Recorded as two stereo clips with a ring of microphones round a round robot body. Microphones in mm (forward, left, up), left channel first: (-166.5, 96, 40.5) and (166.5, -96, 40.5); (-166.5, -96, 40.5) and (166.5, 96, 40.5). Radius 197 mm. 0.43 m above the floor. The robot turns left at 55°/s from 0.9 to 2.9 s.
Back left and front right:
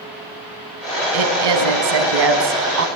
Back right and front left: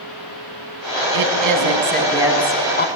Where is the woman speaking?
5° left, 4.5 m; by 2.9 s 90° right, 4.5 m.